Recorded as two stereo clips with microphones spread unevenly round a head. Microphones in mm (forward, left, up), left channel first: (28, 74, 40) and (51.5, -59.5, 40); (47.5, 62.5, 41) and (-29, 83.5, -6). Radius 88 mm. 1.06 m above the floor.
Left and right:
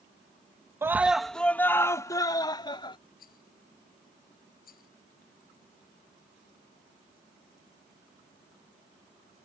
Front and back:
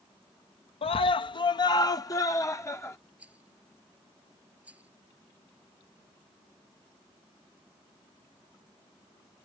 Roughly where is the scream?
Ahead.